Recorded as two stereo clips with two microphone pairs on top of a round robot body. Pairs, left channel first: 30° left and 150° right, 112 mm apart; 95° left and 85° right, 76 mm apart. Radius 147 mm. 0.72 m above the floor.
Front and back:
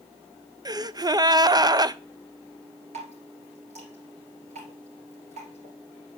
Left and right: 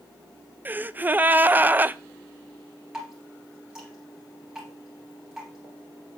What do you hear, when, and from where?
0.7 s a gasp: 145° right, 0.5 m
2.9 s dripping: 165° right, 2.5 m